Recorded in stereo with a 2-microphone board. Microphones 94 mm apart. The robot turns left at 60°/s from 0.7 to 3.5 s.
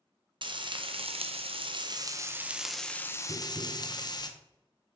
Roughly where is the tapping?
Right.